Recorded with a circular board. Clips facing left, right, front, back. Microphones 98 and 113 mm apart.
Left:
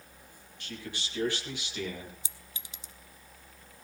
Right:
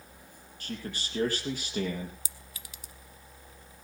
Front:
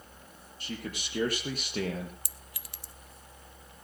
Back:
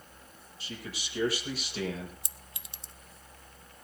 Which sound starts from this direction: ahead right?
A man speaking, at 0.6 s.